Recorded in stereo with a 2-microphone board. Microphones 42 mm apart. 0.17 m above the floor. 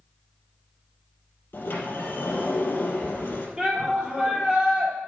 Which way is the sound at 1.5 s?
55° left (ahead or behind).